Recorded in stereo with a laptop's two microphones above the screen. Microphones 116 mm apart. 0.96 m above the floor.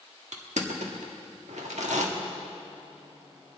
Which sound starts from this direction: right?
Crushing, at 0.3 s.